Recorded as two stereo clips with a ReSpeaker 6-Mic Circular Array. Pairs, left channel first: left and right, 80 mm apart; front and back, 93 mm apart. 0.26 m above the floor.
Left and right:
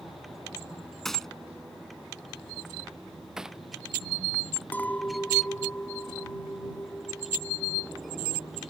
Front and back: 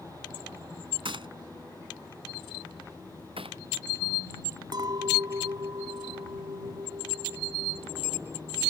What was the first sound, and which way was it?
A gunshot, 175° left.